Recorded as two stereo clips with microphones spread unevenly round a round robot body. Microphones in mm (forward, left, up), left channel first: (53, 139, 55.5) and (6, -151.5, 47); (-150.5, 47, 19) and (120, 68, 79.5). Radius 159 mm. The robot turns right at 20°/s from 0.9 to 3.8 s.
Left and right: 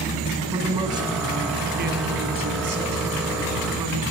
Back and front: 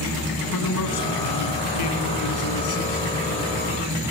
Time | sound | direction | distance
0.5 | a man speaking | 175° right | 4.5 m